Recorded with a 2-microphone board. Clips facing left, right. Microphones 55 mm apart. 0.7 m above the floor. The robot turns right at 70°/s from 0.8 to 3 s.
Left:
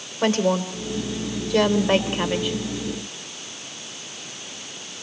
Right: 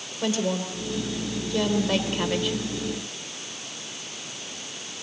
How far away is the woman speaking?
About 3 m.